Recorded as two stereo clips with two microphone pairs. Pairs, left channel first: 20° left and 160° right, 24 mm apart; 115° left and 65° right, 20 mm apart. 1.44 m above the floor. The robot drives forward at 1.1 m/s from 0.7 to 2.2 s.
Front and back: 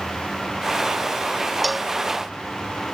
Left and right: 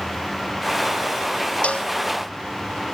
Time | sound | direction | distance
1.6 | a cowbell | 110° left | ?